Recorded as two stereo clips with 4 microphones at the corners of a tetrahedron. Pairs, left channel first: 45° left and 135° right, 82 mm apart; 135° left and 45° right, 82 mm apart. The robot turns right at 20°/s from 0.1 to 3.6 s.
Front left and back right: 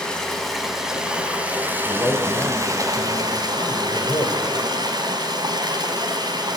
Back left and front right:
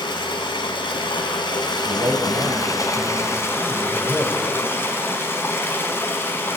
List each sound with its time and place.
0.0 s running water: 125° left, 2.5 m; by 6.6 s 165° right, 2.5 m
1.9 s a man speaking: 15° right, 2.5 m; by 4.5 s 20° left, 2.5 m